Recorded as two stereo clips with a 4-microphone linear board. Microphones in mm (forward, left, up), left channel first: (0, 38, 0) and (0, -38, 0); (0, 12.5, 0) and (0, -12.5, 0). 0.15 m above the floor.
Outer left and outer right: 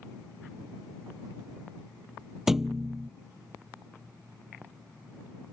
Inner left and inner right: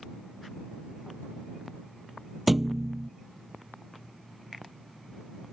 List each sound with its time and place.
2.5 s a thud: 5° right (ahead or behind)